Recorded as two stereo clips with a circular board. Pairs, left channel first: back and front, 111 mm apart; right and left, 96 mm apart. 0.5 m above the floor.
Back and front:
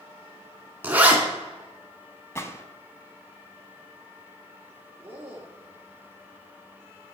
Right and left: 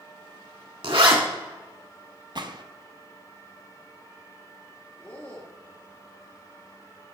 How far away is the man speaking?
About 1.2 m.